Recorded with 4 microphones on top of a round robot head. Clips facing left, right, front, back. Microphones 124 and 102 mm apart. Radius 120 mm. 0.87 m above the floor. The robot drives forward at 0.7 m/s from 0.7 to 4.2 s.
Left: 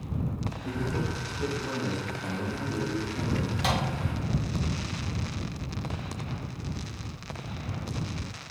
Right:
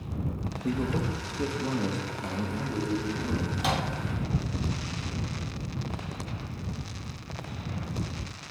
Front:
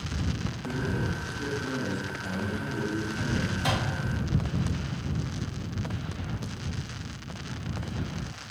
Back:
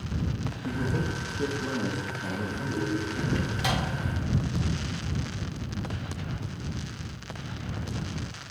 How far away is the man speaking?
About 0.8 m.